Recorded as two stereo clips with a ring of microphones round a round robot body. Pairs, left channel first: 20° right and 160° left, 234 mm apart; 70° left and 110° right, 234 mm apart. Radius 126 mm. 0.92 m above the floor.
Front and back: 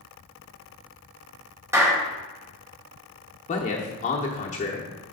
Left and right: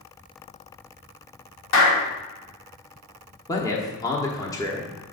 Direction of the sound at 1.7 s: 80° left.